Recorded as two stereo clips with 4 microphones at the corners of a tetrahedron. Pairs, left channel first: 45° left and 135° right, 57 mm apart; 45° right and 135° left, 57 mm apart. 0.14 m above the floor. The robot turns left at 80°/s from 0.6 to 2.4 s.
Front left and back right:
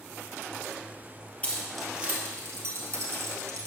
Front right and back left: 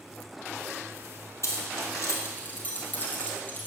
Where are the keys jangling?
20° right, 2 m; by 3.7 s 100° right, 2 m.